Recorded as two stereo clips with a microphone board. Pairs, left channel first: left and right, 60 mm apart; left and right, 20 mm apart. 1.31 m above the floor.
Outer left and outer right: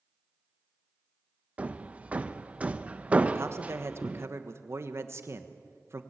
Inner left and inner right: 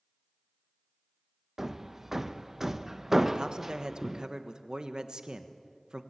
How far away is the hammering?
About 0.7 m.